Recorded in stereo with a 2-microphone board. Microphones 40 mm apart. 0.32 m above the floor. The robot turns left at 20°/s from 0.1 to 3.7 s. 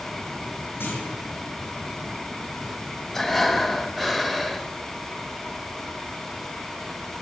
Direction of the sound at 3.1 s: 5° left (ahead or behind).